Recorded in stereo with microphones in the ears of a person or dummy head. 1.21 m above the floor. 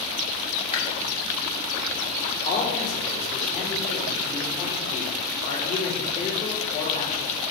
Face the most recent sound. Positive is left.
turn(degrees=45)  # may be behind; listen again after turning